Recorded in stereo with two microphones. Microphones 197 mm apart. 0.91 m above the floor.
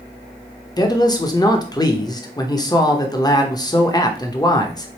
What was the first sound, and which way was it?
A man speaking, 20° left (ahead or behind).